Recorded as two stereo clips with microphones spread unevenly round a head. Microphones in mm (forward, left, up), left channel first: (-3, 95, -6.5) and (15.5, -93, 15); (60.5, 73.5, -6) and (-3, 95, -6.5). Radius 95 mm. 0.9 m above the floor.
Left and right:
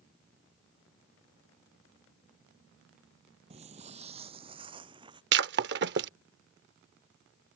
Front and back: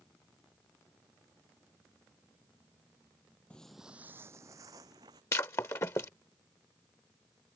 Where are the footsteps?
85° right; by 5.2 s 150° right.